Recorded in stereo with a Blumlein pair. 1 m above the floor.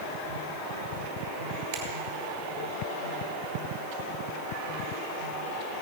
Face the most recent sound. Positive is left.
turn(degrees=-45)